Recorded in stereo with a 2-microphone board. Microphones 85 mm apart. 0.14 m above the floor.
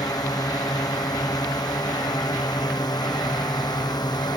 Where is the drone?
50° left (ahead or behind); by 4.4 s 55° left (ahead or behind).